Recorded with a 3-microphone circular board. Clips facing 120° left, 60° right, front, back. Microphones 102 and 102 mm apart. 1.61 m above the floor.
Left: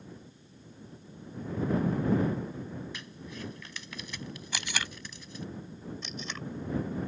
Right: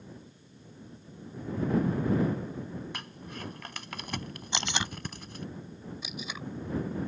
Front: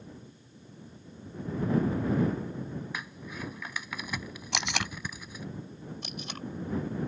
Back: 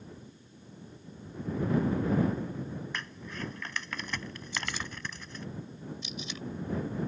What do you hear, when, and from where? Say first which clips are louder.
2.9 s crumpling: right 1 dB, even; 80° right
4.5 s tape being pulled: right 4 dB, front 5 dB; 10° left
6.0 s tape being pulled: even, front 1 dB; 20° left